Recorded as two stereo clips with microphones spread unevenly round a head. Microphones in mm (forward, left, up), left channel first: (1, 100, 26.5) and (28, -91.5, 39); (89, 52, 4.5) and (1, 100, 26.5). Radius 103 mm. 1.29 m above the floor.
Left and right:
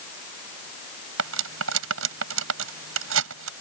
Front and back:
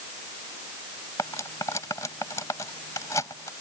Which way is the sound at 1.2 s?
105° right.